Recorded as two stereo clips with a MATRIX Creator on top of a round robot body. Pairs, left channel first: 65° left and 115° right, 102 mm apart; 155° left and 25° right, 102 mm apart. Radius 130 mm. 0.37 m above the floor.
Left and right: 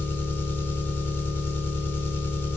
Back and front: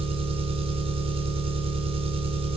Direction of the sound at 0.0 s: Straight ahead.